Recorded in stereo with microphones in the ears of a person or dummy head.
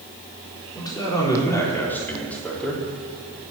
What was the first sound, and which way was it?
A man speaking, 20° left (ahead or behind).